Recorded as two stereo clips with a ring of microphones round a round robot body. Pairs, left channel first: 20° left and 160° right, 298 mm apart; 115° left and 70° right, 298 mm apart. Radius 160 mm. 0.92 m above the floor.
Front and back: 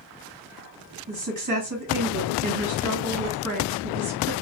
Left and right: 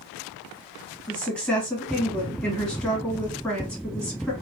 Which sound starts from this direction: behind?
A woman speaking, at 1.1 s.